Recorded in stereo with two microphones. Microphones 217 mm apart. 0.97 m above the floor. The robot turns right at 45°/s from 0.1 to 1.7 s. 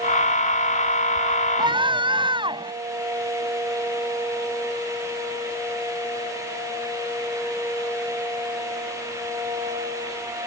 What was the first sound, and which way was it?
A scream, 20° right (ahead or behind).